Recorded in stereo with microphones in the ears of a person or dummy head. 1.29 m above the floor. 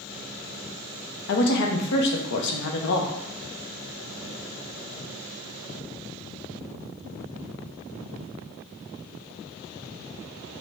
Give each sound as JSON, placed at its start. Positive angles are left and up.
{"t": 1.3, "sound": "a woman speaking", "side_deg": 65, "distance_m": 0.7}